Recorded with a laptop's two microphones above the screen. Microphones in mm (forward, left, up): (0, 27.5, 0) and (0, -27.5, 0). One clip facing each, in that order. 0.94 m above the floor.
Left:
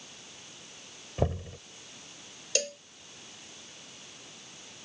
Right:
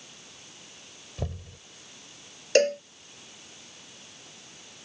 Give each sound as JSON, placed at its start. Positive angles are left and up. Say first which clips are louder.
{"t": 1.2, "sound": "knocking", "louder": "left 7 dB", "side_deg": 35}
{"t": 2.5, "sound": "a cowbell", "louder": "right 13 dB", "side_deg": -50}